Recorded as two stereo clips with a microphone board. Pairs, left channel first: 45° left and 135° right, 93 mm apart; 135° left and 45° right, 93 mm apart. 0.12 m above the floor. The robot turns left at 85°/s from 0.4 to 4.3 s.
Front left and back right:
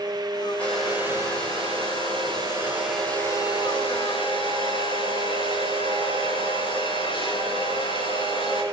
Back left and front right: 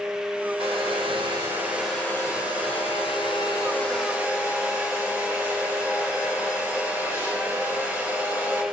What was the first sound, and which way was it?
A hair dryer, 25° right.